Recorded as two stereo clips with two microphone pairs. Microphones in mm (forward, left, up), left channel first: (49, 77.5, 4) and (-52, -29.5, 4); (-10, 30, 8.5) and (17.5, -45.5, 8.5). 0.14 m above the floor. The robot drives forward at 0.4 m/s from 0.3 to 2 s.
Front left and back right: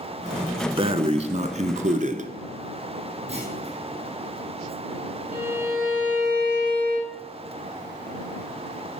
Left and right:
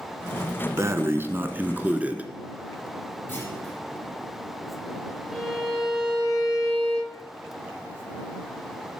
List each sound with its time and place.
0.8 s breathing: 100° right, 0.8 m; by 2.3 s 140° right, 1.0 m
3.3 s a clunk: straight behind, 4.5 m
5.3 s a violin: 155° right, 5 m